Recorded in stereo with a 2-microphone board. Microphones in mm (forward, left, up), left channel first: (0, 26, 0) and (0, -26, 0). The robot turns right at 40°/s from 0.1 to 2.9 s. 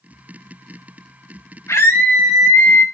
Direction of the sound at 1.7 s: 90° left.